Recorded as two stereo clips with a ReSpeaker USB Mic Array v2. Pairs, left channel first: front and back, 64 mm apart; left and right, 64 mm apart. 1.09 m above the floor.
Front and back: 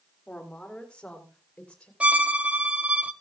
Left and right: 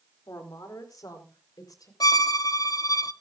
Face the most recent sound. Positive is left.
turn(degrees=110)